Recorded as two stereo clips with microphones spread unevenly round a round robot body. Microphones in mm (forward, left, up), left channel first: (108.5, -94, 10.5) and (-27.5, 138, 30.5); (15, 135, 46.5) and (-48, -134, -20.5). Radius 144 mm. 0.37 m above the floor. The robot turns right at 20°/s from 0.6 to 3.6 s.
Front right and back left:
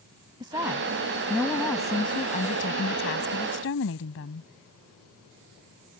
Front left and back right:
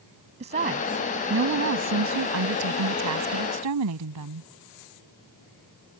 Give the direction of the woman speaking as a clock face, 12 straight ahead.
5 o'clock.